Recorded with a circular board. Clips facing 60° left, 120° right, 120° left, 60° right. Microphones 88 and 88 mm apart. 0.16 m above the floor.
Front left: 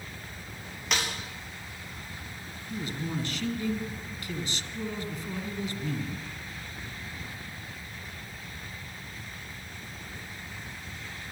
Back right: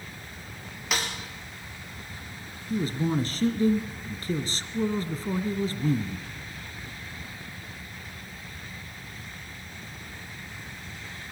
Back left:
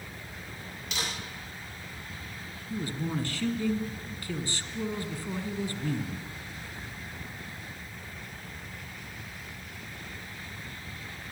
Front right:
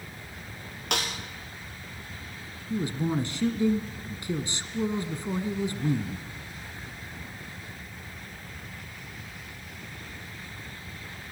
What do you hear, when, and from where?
0.9 s a snare drum: 30° right, 6.5 m
2.7 s a man speaking: 115° right, 1.7 m